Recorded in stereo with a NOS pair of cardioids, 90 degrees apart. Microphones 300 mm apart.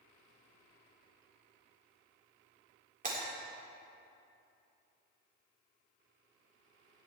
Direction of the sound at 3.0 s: 25° right.